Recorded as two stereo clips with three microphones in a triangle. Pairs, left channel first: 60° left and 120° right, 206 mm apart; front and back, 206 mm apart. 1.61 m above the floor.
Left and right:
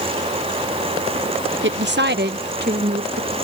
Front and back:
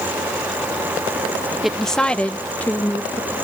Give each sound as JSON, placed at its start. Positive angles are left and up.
{"t": 1.6, "sound": "a woman speaking", "azimuth_deg": -90}